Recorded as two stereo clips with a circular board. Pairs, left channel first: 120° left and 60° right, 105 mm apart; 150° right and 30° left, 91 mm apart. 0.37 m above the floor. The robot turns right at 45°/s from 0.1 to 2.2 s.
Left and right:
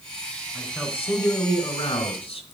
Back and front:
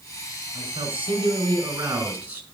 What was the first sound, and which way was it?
A man speaking, 25° left.